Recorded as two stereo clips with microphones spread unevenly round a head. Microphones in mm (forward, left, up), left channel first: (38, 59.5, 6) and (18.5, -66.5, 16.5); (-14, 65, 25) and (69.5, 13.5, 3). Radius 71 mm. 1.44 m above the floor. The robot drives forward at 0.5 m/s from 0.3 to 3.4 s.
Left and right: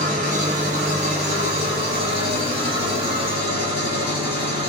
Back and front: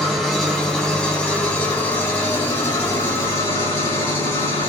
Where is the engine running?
130° right, 1.8 m; by 4.7 s 155° right, 3 m.